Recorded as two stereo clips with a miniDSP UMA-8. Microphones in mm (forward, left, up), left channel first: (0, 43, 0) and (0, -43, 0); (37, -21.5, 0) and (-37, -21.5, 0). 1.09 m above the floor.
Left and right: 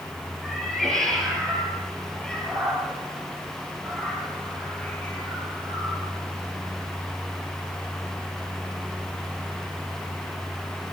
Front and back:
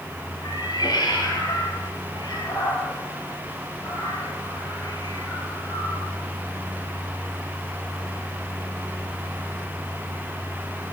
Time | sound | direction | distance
0.4 | a cat meowing | straight ahead | 10 m